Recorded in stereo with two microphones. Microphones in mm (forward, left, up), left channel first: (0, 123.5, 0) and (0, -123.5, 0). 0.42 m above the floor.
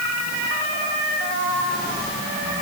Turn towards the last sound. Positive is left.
No sound to turn to.